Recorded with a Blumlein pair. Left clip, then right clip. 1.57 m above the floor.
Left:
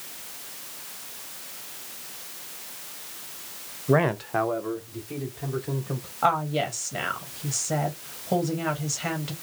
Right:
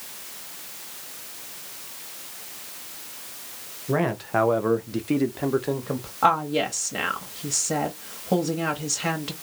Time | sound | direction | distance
3.9 | a man speaking | 20° left | 0.7 m
6.2 | a woman speaking | 10° right | 0.9 m